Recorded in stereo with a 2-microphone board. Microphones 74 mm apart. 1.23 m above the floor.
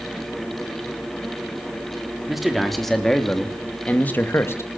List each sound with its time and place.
2.3 s a man speaking: 5° right (ahead or behind), 3.5 m; by 4.7 s 35° left (ahead or behind), 2.0 m